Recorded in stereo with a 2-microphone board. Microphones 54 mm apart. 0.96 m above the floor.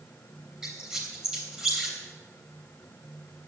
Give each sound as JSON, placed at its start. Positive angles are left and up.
{"t": 0.6, "sound": "a squeak", "side_deg": -10, "distance_m": 3.5}